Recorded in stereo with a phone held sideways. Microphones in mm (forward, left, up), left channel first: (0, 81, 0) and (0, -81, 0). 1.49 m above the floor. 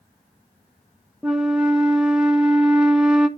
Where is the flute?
5° right (ahead or behind), 0.8 m.